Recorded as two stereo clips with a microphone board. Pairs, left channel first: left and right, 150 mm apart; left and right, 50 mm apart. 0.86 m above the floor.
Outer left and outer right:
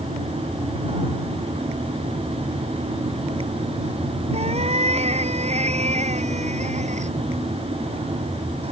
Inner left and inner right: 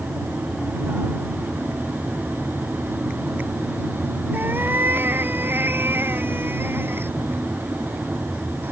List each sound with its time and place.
4.3 s a cat meowing: 45° right (ahead or behind); by 7.1 s 55° right (ahead or behind)